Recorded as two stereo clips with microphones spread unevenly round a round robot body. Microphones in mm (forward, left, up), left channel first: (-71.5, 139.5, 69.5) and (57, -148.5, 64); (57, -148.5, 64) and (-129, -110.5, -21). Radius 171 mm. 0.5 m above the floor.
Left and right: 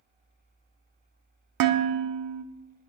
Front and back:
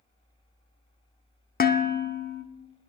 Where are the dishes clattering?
75° right, 0.7 m.